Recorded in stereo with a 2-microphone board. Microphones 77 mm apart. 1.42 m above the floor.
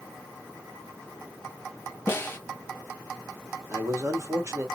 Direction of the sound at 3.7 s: 35° right (ahead or behind).